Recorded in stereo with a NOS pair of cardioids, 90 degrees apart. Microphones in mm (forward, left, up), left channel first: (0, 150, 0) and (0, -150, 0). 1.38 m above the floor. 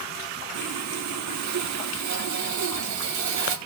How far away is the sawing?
About 2.5 m.